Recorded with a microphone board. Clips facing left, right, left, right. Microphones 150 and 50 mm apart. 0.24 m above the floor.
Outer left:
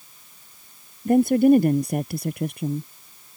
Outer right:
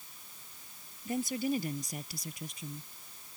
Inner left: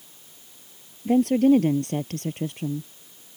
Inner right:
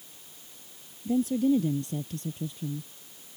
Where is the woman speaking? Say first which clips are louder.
Outer left 17 dB, inner left 7 dB; 60° left (ahead or behind); by 2.9 s 65° left (ahead or behind).